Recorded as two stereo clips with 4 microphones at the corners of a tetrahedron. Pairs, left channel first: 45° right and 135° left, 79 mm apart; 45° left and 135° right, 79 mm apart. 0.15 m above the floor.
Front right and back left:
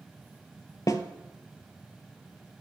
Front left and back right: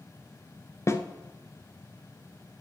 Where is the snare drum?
5° right, 0.5 m.